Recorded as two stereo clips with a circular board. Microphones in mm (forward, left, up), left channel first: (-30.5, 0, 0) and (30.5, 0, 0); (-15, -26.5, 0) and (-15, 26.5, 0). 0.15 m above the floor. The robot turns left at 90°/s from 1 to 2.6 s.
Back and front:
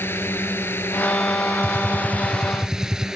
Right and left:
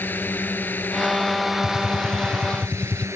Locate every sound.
0.0 s a drone: 135° right; by 3.2 s 80° left
1.6 s a gunshot: 15° left; by 3.1 s 70° right